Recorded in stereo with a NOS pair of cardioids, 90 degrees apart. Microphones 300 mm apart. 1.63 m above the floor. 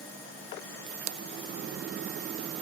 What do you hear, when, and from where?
Only background noise.